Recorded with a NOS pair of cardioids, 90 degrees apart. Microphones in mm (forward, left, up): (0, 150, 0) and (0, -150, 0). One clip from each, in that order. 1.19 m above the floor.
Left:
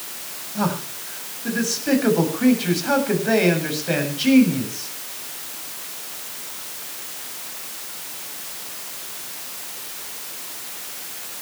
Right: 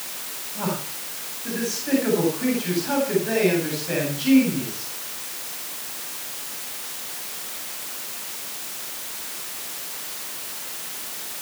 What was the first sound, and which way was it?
A man speaking, 50° left.